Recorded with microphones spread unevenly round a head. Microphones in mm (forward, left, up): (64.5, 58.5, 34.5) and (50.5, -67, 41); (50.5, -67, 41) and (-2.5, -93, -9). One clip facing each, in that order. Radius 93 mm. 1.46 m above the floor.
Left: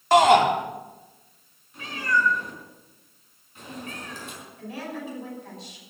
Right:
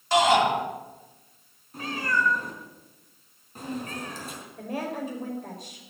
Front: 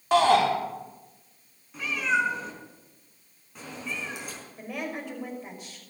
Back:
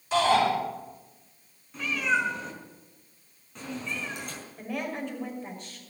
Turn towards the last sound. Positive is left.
turn(degrees=-55)